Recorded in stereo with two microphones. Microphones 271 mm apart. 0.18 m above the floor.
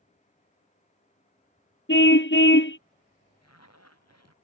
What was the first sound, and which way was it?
A car horn, 50° left (ahead or behind).